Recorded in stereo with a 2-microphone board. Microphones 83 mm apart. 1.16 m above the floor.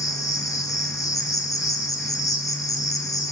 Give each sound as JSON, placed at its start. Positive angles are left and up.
{"t": 0.0, "sound": "an insect", "side_deg": 45, "distance_m": 3.0}